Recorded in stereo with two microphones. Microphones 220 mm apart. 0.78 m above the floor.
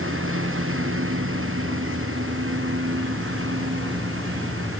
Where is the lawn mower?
70° right (ahead or behind).